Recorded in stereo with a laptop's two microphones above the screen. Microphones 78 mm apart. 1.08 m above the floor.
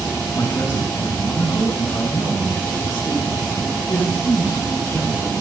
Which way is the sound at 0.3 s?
55° left (ahead or behind).